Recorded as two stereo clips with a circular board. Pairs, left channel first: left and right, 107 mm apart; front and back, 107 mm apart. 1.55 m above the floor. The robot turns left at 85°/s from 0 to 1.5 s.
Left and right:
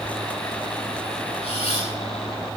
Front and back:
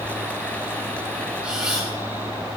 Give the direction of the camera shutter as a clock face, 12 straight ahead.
9 o'clock.